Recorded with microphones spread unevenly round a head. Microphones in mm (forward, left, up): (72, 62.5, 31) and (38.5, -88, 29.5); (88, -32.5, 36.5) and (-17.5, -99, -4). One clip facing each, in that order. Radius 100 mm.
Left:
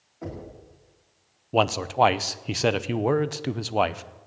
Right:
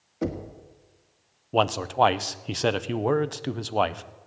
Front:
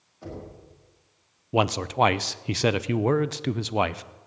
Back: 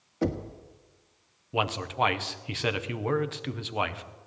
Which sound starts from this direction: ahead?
A man speaking, at 1.5 s.